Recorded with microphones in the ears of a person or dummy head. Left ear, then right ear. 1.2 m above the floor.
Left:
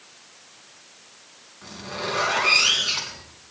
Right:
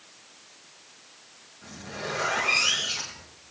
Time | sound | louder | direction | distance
1.6 | a zipper | left 5 dB | 60° left (ahead or behind) | 5.5 m